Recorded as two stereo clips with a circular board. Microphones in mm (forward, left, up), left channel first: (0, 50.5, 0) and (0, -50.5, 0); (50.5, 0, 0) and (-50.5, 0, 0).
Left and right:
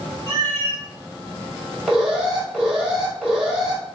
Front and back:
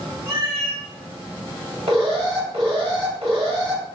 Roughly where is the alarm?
Behind.